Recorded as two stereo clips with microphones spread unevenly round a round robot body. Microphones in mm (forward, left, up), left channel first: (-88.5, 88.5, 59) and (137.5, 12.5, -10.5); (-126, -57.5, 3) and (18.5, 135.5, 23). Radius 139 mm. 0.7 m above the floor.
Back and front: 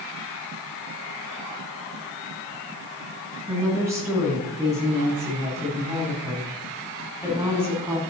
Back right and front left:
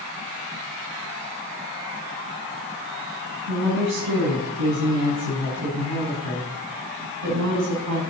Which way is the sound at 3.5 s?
60° left.